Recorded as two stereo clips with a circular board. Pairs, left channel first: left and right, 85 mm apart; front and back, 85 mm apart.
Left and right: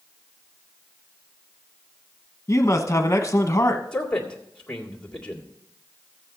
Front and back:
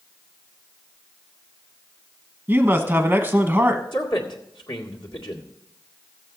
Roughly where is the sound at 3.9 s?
Ahead.